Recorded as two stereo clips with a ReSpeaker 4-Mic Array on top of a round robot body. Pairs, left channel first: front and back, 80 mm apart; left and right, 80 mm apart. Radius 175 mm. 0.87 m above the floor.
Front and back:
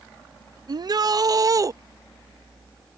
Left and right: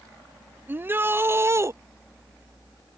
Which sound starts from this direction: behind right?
A shout, at 0.7 s.